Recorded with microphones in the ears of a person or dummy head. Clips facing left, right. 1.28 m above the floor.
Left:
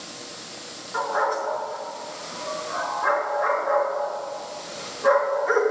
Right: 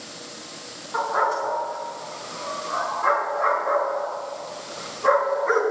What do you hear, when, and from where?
0.9 s a dog barking: 50° right (ahead or behind), 3.5 m